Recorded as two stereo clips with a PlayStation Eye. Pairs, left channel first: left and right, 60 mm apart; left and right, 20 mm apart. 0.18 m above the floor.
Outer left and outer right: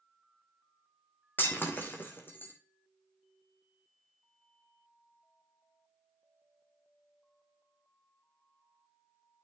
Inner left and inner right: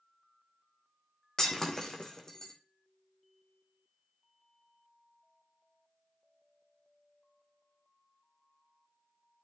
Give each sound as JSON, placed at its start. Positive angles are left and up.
{"t": 1.4, "sound": "breaking glass", "side_deg": 35, "distance_m": 1.8}